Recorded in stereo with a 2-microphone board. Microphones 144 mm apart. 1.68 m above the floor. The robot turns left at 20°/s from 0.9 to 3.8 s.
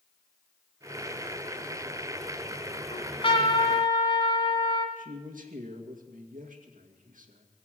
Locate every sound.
2.9 s a trumpet: 45° left (ahead or behind), 2 m; by 4.9 s 40° left (ahead or behind), 2 m
5.0 s a man speaking: 85° right, 2 m